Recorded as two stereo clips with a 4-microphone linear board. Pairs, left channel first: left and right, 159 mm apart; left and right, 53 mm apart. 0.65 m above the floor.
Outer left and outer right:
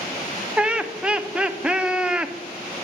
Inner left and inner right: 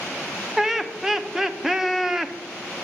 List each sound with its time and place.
0.6 s laughter: 5° right (ahead or behind), 0.6 m